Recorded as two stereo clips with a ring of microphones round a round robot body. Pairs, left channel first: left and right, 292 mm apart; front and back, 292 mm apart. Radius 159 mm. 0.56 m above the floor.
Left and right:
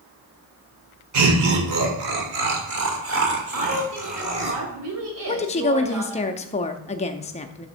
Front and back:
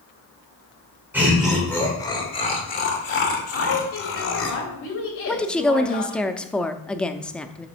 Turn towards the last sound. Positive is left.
turn(degrees=80)